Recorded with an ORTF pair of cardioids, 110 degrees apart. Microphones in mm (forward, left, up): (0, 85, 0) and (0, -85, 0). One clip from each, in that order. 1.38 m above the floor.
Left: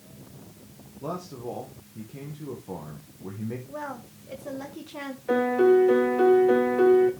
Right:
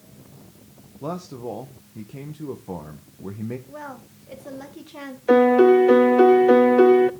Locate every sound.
1.0 s a man speaking: 25° right, 1.1 m
3.7 s a woman speaking: straight ahead, 1.1 m
5.3 s a piano: 45° right, 0.8 m